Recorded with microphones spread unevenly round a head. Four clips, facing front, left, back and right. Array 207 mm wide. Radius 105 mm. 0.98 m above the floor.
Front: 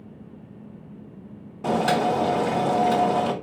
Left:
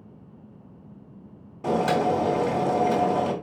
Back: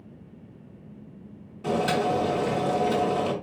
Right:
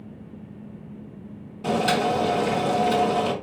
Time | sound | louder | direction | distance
1.6 | boiling | even, front 3 dB | 25° left | 2.5 m